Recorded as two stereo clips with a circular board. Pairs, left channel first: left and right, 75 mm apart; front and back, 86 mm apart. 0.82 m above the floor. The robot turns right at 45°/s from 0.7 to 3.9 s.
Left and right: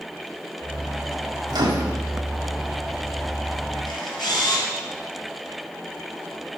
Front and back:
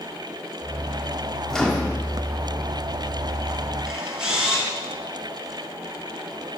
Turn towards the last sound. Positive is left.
turn(degrees=100)